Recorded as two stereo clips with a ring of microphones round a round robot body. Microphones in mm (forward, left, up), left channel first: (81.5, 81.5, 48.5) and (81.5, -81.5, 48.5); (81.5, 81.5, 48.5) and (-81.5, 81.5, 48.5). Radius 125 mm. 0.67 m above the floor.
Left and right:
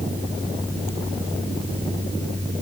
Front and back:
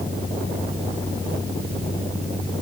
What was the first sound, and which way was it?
Only background noise.